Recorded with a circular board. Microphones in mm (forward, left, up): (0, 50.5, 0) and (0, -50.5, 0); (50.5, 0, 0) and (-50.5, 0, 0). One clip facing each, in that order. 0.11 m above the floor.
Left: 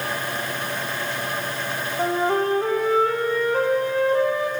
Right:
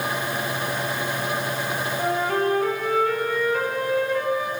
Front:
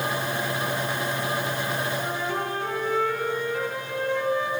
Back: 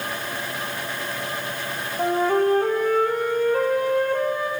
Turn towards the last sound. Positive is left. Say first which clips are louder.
# left 2 dB, back 9 dB
turn(degrees=145)